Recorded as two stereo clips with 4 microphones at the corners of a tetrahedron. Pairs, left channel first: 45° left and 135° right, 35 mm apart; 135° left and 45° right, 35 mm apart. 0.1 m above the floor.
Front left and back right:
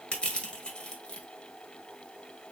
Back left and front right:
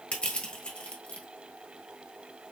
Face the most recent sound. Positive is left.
turn(degrees=95)